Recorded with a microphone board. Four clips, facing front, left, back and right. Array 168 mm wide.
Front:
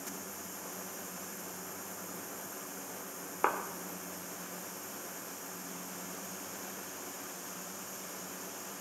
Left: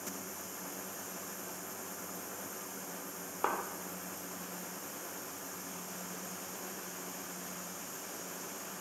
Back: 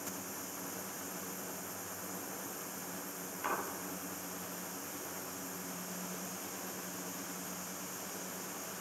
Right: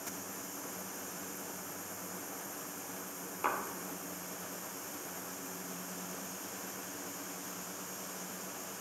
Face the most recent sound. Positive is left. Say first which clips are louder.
# left 1 dB, front 6 dB
turn(degrees=20)